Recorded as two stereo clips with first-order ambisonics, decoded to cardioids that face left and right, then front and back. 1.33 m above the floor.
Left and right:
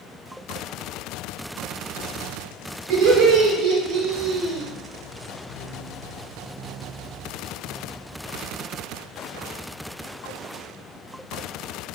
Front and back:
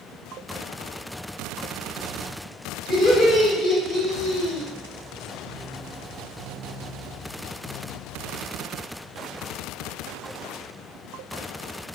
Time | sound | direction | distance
2.9 | laughter | 85° right | 1.3 m